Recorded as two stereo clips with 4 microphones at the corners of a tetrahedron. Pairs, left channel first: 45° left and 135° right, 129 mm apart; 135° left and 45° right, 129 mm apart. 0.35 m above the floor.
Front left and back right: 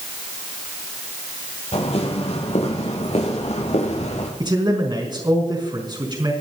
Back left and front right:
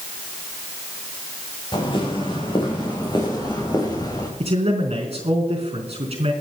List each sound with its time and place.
1.7 s footsteps: 85° left, 5 m; by 4.3 s 75° left, 4 m
4.4 s a man speaking: 80° right, 4 m